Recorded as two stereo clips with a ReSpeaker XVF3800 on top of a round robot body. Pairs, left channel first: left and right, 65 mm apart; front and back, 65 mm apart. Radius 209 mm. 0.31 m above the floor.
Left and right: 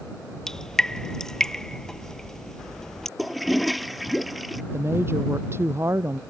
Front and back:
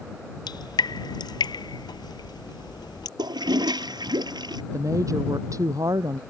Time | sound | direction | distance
0.5 | dripping | 10° left | ?
3.2 | a toilet flushing | straight behind | ?
4.7 | a woman speaking | 140° right | ?